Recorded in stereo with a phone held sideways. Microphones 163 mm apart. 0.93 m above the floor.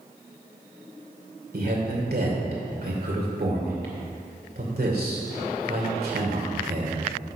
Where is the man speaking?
75° right (ahead or behind), 3 m.